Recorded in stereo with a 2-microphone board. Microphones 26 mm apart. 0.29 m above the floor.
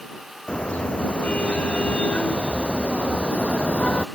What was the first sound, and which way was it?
A car horn, 50° left (ahead or behind).